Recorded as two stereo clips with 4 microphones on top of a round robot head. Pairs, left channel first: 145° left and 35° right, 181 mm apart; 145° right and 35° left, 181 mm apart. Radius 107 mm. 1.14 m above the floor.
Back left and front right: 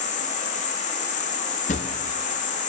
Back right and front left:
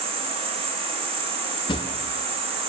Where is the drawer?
165° left, 0.5 m.